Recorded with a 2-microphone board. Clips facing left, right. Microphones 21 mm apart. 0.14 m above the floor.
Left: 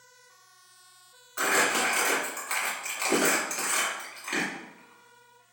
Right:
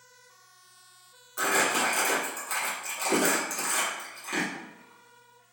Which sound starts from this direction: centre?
Crumpling, at 1.4 s.